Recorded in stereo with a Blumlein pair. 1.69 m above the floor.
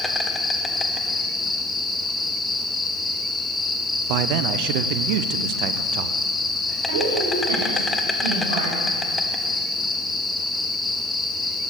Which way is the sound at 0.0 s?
15° left.